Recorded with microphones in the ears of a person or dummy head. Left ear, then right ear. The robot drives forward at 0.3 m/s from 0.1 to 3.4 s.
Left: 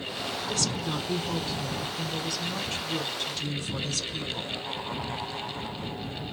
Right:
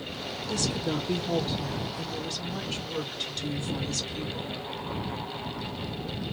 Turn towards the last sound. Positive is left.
turn(degrees=60)  # may be behind; listen again after turning